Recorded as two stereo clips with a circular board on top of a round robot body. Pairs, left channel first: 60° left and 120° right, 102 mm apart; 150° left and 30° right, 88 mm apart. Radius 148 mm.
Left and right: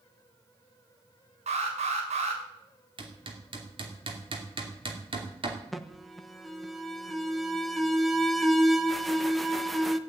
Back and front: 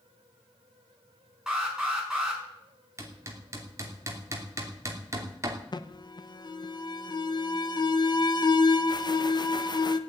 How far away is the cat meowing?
No cat meowing in this recording.